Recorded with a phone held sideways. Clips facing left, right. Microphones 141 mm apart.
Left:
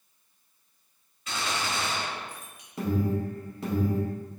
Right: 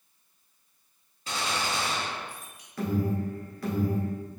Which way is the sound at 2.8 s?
20° left (ahead or behind).